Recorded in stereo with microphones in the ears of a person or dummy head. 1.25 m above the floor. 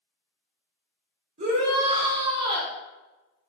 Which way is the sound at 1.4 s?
35° right (ahead or behind).